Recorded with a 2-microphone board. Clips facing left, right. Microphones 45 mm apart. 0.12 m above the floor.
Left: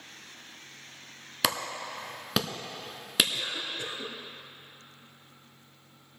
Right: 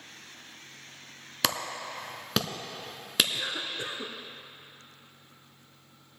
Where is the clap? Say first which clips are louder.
Left 1 dB; 5° left (ahead or behind), 0.9 m.